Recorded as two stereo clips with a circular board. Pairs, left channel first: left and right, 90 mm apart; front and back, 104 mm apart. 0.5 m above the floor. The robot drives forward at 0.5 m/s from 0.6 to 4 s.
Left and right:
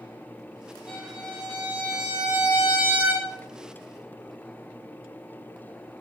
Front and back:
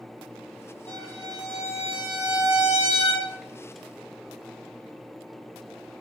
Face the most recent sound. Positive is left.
turn(degrees=-15)